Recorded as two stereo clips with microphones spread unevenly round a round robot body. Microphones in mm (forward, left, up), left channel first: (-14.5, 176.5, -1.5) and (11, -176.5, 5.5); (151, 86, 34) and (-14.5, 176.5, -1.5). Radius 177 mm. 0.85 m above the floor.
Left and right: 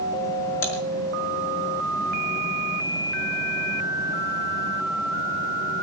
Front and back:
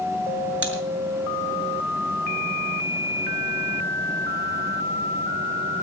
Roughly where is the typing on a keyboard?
Behind left.